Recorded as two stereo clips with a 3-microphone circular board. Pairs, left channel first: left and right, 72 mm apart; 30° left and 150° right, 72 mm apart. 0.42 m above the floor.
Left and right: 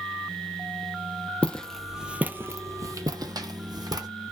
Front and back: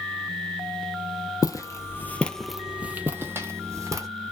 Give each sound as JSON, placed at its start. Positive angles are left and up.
{"t": 1.4, "sound": "footsteps", "azimuth_deg": 15, "distance_m": 0.6}